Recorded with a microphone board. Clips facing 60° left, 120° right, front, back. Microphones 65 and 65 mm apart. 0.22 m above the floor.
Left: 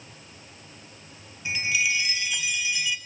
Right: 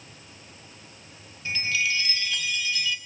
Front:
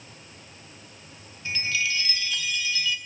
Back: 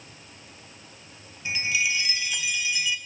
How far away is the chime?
About 1.4 m.